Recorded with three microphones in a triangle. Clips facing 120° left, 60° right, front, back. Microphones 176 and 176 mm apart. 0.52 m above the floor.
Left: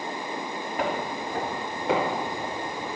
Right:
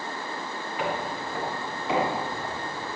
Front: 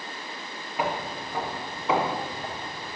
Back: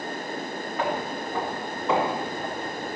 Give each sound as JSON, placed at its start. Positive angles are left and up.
{"t": 0.8, "sound": "footsteps", "azimuth_deg": 80, "distance_m": 4.5}